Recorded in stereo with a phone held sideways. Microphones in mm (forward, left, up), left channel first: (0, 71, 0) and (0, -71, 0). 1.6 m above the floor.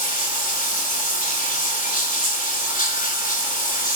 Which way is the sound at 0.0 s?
70° left (ahead or behind).